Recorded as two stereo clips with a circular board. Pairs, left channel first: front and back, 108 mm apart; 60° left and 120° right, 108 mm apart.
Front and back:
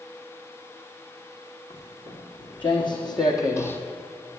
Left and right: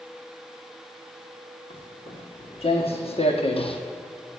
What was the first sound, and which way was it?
Footsteps, 30° left.